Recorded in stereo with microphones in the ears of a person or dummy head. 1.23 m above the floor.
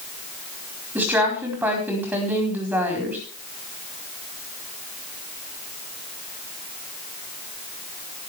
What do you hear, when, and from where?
0.9 s a woman speaking: 5° right (ahead or behind), 4 m